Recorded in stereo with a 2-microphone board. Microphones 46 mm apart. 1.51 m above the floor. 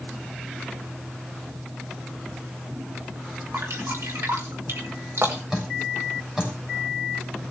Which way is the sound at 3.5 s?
80° right.